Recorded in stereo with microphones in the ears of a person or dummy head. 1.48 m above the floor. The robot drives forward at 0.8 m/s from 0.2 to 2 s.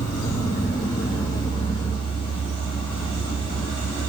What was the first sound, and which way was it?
An insect, 20° left (ahead or behind).